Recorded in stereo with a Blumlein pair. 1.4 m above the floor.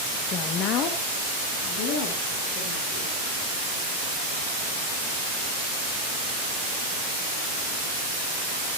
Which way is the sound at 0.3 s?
30° left.